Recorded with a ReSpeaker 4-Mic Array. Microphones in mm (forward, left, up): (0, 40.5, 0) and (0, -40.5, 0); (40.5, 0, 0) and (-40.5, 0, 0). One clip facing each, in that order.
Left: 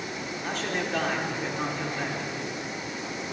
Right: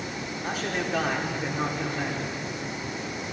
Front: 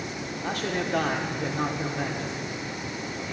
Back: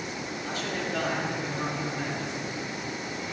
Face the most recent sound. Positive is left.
turn(degrees=-5)